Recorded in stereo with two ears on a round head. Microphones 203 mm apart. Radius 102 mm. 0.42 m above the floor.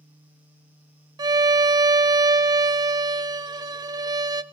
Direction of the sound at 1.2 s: 20° right (ahead or behind).